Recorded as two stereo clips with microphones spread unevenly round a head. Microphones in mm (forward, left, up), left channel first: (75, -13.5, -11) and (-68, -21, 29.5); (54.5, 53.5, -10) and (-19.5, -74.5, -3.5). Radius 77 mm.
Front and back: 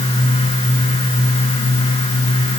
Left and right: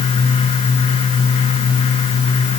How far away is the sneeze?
No sneeze in this recording.